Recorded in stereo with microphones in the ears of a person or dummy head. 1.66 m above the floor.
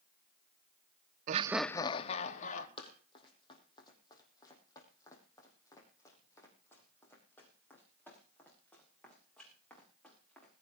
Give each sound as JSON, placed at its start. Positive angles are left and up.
{"t": 1.3, "sound": "laughter", "side_deg": -50, "distance_m": 0.6}
{"t": 2.8, "sound": "running footsteps", "side_deg": 30, "distance_m": 3.5}